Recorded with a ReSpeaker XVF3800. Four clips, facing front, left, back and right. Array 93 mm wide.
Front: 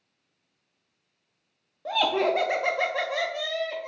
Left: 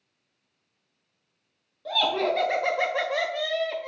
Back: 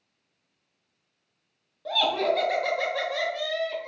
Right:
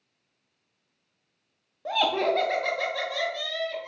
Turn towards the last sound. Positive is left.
turn(degrees=80)